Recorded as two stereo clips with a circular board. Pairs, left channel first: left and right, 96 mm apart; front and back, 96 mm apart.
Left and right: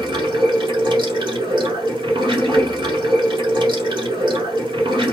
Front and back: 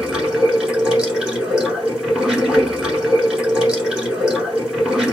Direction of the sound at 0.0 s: 100° right.